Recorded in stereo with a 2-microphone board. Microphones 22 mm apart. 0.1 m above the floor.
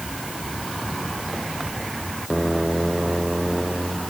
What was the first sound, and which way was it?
Only background noise.